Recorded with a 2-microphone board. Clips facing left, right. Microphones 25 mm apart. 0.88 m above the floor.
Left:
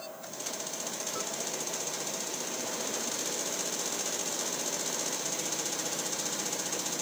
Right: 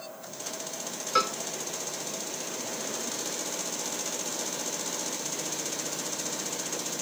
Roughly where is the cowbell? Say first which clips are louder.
Right 16 dB; right.